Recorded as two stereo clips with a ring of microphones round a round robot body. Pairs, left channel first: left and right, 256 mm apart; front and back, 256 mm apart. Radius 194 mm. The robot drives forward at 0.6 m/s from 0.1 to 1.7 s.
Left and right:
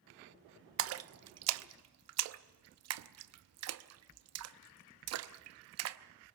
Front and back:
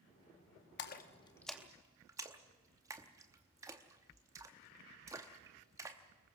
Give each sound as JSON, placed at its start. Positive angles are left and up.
{"t": 0.8, "sound": "a splash", "azimuth_deg": -50, "distance_m": 0.8}